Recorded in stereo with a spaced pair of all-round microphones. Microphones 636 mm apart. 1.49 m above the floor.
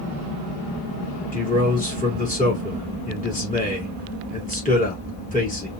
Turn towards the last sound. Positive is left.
turn(degrees=10)  # may be behind; listen again after turning